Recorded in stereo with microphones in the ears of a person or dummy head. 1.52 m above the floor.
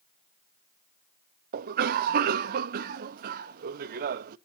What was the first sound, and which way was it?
A cough, 50° right (ahead or behind).